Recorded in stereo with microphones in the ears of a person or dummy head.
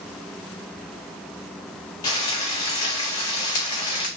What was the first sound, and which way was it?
Frying, 20° left (ahead or behind).